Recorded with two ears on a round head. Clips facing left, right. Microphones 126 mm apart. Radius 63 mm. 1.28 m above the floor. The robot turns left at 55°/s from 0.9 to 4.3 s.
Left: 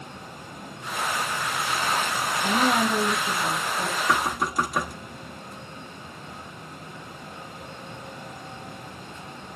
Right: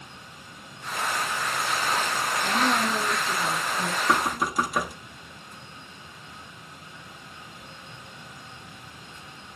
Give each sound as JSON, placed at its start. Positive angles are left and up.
{"t": 2.4, "sound": "a woman speaking", "azimuth_deg": 75, "distance_m": 4.0}
{"t": 4.1, "sound": "knocking", "side_deg": -15, "distance_m": 1.3}